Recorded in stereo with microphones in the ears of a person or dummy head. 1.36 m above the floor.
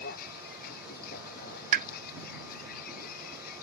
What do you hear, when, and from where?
0.0 s a vehicle: 55° left (ahead or behind)
1.7 s a pop: 50° right (ahead or behind)